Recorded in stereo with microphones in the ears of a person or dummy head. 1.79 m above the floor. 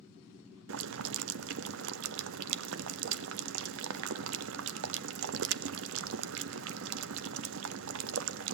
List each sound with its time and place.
0.7 s boiling: 75° right (ahead or behind), 0.8 m